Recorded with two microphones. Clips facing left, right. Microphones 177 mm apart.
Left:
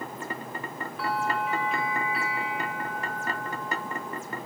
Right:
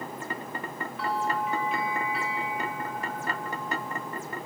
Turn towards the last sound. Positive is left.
turn(degrees=0)  # may be behind; listen again after turning